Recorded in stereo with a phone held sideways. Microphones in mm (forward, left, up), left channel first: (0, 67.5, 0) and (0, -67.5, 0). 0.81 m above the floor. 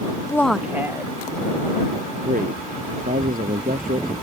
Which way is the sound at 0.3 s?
20° left (ahead or behind).